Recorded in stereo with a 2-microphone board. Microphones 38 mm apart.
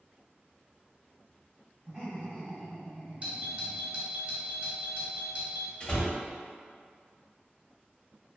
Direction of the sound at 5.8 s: 20° left (ahead or behind).